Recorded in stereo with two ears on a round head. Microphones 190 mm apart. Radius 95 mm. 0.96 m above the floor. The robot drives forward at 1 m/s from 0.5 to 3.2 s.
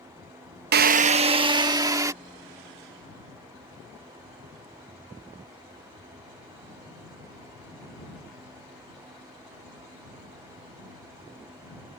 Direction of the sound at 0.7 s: 50° right (ahead or behind).